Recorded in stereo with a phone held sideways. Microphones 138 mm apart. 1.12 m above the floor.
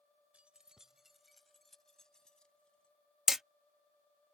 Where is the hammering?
5° right (ahead or behind).